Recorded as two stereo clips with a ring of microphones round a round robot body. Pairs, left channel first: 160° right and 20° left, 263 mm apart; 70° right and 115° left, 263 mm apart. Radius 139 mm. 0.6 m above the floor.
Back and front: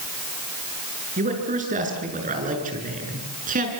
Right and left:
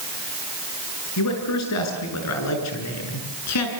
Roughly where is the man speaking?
Ahead right.